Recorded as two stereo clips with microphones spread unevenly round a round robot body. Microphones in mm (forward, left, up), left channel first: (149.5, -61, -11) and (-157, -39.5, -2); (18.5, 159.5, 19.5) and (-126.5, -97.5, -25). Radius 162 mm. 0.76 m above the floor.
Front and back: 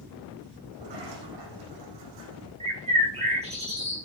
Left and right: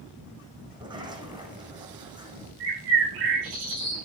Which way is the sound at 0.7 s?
165° left.